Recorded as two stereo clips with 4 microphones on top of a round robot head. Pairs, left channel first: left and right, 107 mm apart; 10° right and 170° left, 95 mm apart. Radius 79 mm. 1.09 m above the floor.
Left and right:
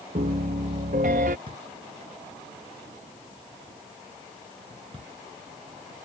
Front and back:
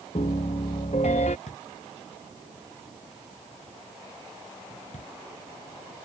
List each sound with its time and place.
0.1 s a piano: 55° right
1.5 s a drawer: 35° right